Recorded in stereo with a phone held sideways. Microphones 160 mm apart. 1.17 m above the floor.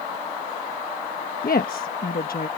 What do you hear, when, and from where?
1.4 s a woman speaking: 65° left (ahead or behind)